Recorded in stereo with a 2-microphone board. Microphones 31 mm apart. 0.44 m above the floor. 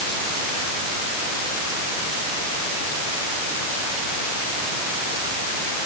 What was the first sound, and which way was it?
Only background noise.